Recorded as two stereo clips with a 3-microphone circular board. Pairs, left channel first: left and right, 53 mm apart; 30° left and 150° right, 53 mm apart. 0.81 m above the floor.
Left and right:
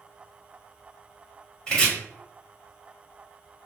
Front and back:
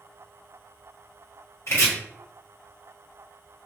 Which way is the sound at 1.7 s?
25° left.